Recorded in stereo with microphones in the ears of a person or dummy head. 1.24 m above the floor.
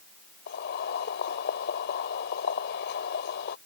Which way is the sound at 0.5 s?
65° left (ahead or behind).